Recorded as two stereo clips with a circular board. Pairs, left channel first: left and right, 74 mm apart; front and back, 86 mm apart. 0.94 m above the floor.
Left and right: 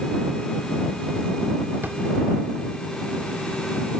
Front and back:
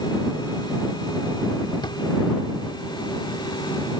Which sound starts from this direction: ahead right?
A drawer, at 1.8 s.